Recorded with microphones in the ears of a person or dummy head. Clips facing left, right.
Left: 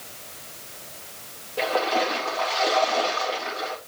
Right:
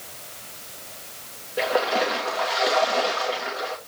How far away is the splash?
About 2 m.